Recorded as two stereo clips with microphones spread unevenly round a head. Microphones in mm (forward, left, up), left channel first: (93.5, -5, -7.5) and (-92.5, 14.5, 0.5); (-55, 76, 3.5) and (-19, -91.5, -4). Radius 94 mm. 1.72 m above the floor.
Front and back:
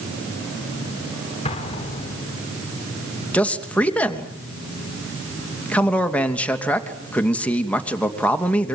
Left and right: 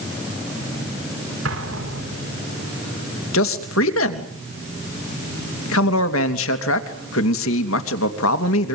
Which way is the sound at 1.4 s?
65° right.